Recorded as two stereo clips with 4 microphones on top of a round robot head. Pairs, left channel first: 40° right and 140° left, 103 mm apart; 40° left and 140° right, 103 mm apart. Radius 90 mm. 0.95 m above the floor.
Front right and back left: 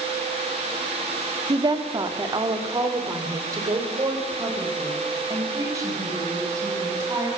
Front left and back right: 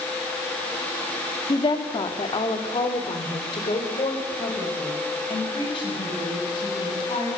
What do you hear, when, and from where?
1.5 s a woman speaking: 90° left, 1.6 m; by 7.3 s 80° left, 7 m